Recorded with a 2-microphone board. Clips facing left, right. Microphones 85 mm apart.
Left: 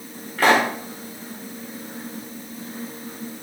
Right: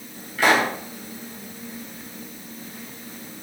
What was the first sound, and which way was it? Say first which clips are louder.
A pop: left 2 dB; 45° left (ahead or behind).